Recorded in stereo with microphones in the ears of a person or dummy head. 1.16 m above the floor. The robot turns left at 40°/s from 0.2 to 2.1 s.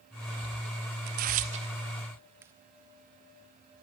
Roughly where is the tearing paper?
Right.